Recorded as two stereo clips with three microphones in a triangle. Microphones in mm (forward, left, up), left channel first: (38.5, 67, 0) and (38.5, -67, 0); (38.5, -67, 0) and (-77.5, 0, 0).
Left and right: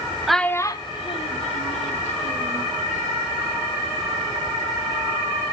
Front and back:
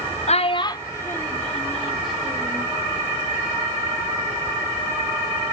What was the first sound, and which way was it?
A child speaking, straight ahead.